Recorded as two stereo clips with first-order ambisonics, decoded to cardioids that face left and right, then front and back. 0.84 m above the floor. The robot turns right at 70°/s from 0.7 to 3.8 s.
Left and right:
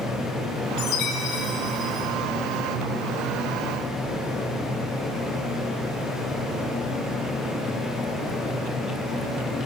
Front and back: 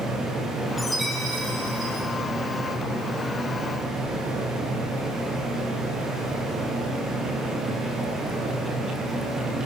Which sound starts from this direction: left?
A chime, at 0.8 s.